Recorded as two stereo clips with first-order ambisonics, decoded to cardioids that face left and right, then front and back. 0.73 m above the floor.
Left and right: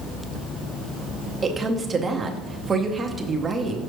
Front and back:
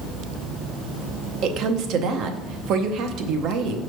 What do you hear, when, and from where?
1.4 s a woman speaking: 160° right, 0.7 m